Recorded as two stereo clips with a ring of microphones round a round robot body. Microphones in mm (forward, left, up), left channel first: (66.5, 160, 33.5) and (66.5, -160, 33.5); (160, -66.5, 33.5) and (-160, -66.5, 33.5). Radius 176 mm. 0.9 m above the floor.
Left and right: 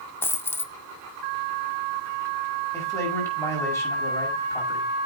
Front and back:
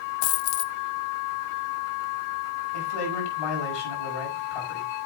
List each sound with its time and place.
0.2 s a dropped coin: 10° left, 0.5 m
2.7 s a man speaking: 10° left, 7 m